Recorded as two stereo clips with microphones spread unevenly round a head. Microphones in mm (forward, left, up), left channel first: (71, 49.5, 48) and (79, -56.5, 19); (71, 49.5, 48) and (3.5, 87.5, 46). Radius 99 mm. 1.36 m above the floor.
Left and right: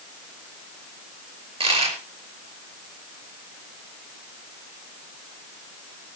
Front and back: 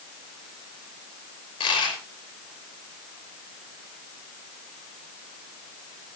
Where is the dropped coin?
55° right, 5.5 m.